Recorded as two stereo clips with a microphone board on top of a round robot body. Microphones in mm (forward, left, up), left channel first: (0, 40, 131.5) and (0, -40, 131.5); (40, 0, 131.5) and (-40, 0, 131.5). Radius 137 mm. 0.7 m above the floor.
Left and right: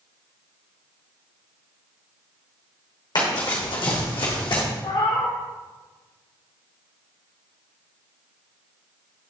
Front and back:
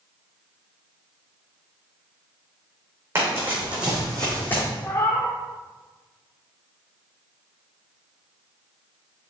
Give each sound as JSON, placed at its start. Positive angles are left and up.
{"t": 3.1, "sound": "running footsteps", "azimuth_deg": 120, "distance_m": 3.0}
{"t": 4.8, "sound": "a cat meowing", "azimuth_deg": 60, "distance_m": 1.1}